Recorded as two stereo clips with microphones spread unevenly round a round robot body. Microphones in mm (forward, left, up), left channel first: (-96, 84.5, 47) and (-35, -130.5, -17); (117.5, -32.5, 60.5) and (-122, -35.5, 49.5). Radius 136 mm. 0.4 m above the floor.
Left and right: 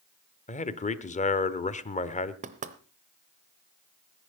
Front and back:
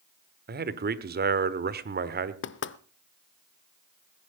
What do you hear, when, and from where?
0.5 s a man speaking: 170° left, 1.1 m
2.4 s knocking: 35° right, 0.8 m